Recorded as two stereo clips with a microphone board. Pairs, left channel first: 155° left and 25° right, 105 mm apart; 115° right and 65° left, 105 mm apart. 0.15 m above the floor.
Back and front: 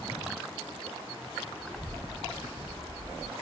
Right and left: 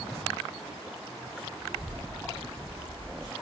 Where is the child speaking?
155° right, 0.8 m; by 3.3 s 65° right, 1.2 m.